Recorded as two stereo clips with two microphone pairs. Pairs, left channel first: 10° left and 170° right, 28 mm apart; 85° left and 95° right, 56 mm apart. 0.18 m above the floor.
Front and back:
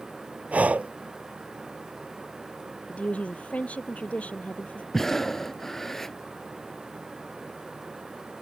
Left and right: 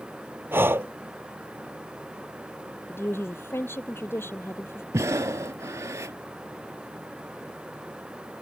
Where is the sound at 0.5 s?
145° right.